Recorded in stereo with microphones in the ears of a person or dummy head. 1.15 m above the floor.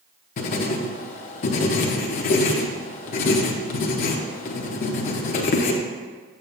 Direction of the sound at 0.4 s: 45° left (ahead or behind).